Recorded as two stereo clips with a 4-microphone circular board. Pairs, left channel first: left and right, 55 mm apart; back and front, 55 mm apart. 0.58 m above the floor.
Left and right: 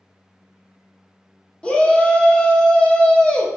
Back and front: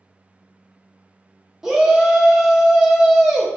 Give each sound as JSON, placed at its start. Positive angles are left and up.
{"t": 1.6, "sound": "a shout", "azimuth_deg": 65, "distance_m": 0.6}